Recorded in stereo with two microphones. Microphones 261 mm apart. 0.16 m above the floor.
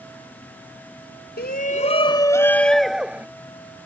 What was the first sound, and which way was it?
A shout, 40° left (ahead or behind).